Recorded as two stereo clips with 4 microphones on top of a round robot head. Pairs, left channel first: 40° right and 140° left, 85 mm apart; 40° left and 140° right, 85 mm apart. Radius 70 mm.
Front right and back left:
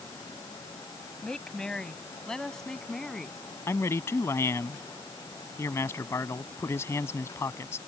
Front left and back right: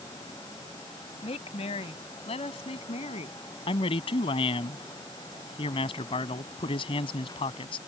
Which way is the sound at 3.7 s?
20° left.